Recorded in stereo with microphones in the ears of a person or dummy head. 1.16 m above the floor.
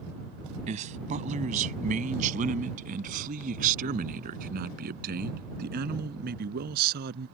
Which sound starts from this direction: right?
A man speaking, at 0.7 s.